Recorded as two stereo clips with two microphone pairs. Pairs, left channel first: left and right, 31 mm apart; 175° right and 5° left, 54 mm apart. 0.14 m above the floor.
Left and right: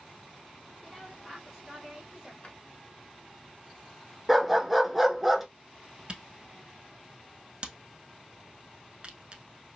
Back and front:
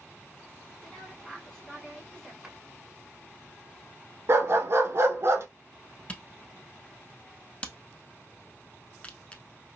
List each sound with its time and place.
0.8 s a woman speaking: 115° left, 1.5 m; by 2.3 s 110° right, 1.5 m
2.4 s a drawer: 95° left, 0.8 m
4.3 s a dog barking: 5° right, 0.5 m
6.1 s a camera shutter: 130° right, 0.5 m